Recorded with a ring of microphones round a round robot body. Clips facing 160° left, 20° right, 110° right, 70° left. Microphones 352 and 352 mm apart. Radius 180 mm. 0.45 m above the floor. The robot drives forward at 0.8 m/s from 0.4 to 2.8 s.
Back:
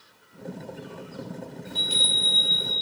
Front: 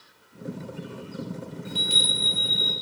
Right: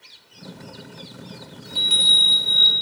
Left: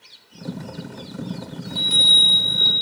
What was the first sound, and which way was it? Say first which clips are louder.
A chime: front 2 dB, left 5 dB; 60° right.